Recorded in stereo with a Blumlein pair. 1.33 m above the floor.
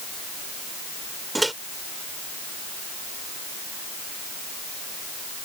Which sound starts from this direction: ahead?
A microwave, at 1.4 s.